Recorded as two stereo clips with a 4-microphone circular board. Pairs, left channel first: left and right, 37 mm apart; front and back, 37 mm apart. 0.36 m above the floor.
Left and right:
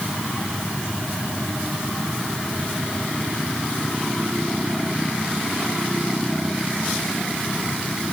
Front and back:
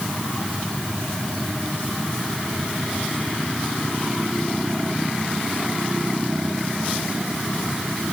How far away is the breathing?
No breathing in this recording.